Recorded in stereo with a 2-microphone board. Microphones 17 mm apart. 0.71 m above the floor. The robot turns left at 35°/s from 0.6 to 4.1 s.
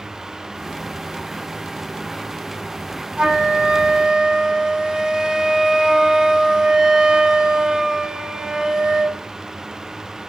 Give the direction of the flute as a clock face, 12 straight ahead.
3 o'clock.